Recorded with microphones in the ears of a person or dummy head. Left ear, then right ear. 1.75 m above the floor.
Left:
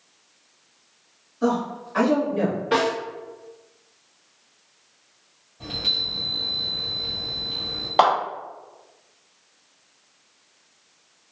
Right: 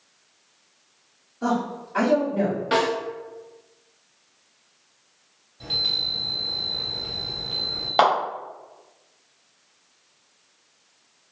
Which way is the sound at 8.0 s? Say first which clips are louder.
Left 1 dB; 10° right (ahead or behind).